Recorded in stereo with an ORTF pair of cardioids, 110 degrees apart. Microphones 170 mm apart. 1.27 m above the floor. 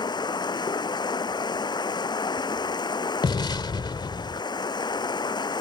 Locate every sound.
0.0 s running water: 25° left
3.2 s an explosion: 25° left